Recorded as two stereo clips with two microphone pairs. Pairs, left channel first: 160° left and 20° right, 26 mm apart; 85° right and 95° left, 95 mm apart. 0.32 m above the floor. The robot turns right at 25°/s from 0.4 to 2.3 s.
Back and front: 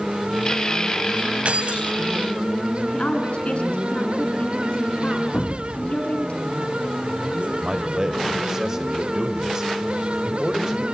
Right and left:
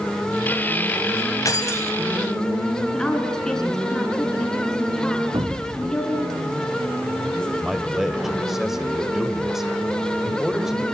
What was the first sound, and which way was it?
Keys jangling, 35° right.